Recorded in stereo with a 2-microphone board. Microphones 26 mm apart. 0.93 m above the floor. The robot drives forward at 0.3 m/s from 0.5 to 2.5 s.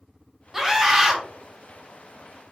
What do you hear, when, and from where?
0.5 s a scream: 15° right (ahead or behind), 0.8 m